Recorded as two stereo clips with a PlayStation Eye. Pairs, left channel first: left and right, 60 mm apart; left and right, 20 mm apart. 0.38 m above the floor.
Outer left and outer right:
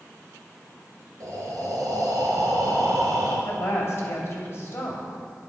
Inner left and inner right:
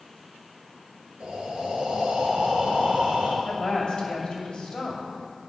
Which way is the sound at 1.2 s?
75° right (ahead or behind).